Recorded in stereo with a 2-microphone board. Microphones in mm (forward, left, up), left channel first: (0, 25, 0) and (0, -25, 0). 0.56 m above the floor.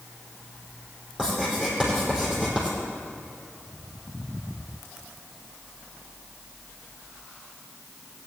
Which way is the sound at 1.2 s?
15° right (ahead or behind).